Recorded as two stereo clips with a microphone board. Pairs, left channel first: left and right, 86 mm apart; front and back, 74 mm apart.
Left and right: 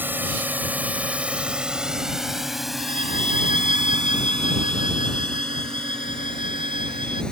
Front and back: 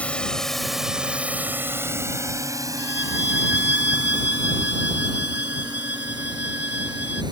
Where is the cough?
I don't hear a cough.